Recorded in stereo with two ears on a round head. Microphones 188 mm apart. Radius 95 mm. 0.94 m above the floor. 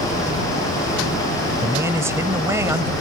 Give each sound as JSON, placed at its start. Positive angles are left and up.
{"t": 1.6, "sound": "a man speaking", "side_deg": -15}